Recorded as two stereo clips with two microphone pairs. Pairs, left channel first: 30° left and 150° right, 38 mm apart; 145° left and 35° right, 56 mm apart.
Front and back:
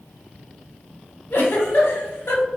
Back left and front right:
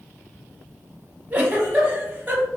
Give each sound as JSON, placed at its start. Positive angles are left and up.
{"t": 1.3, "sound": "a giggle", "azimuth_deg": 25, "distance_m": 0.7}